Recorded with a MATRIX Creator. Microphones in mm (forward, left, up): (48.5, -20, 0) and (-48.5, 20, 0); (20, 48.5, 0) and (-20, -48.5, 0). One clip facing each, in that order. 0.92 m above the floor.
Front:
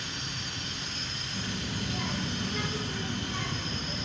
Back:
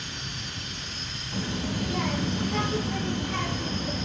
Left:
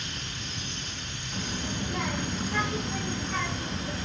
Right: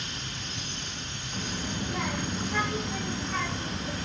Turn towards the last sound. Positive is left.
turn(degrees=160)